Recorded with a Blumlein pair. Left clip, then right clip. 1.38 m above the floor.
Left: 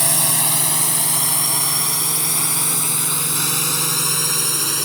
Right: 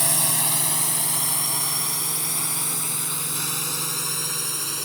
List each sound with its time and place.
0.0 s a drone: 10° left; by 4.9 s 25° left